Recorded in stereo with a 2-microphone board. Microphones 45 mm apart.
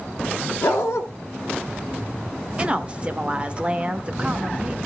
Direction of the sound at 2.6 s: 25° right (ahead or behind).